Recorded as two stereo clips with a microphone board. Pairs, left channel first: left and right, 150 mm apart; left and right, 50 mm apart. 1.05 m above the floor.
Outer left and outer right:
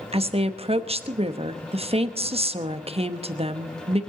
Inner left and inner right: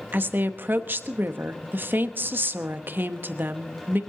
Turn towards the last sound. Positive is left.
turn(degrees=-40)  # may be behind; listen again after turning